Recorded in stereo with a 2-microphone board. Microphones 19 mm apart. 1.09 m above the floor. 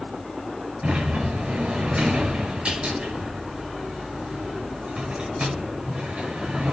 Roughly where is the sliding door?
Right.